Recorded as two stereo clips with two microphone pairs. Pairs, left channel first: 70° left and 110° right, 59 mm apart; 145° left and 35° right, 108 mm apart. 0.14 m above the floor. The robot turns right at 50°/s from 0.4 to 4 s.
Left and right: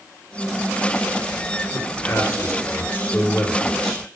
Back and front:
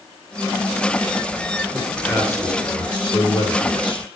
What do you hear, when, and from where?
1.7 s a man speaking: 55° left, 2.5 m; by 4.1 s 170° left, 2.5 m